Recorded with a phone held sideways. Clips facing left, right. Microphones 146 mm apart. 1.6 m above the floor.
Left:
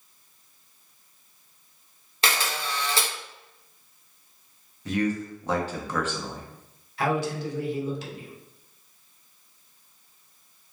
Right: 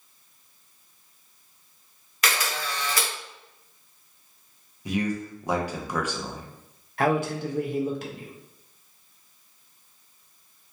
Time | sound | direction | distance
2.2 | a camera shutter | 30° left (ahead or behind) | 0.6 m
4.8 | a man speaking | 15° right (ahead or behind) | 0.6 m
7.0 | a man speaking | 55° right (ahead or behind) | 0.6 m